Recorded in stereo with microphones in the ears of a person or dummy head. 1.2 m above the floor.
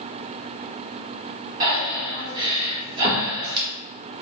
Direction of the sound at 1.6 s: 30° right (ahead or behind).